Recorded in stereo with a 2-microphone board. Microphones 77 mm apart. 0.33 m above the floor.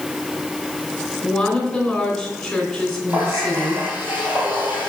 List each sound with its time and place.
1.2 s a woman speaking: 5° left (ahead or behind), 3 m
3.1 s a running tap: 20° right (ahead or behind), 5 m